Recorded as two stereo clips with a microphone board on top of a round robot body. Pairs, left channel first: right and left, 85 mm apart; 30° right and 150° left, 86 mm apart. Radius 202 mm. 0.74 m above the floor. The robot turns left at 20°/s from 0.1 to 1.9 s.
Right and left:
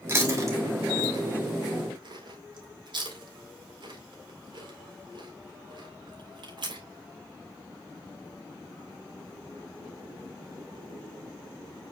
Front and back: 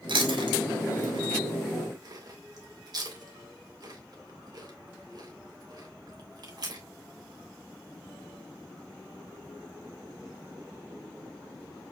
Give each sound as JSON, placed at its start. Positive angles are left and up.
{"t": 0.1, "sound": "chewing", "azimuth_deg": 150, "distance_m": 3.5}